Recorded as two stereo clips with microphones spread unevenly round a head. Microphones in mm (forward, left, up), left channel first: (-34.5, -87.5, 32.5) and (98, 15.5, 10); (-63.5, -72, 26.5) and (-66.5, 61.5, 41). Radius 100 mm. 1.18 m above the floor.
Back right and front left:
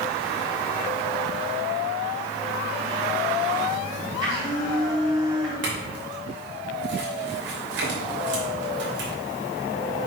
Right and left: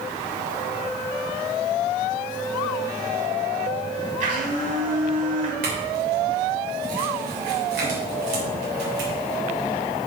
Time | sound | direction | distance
4.2 | a blender | 110° left | 3.5 m
5.6 | a clink | 75° left | 3 m